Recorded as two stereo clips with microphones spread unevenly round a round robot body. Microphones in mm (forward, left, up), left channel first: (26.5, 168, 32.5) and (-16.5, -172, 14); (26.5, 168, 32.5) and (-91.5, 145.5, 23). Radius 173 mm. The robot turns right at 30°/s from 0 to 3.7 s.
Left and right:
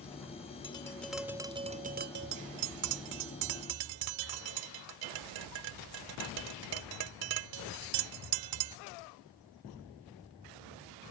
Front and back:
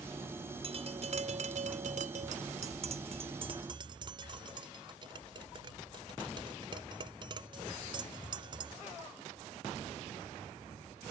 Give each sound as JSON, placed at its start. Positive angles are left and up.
{"t": 0.6, "sound": "tapping", "azimuth_deg": 160}